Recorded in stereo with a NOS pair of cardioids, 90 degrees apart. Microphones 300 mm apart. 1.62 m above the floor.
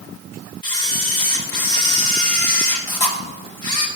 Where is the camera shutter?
15° left, 4 m.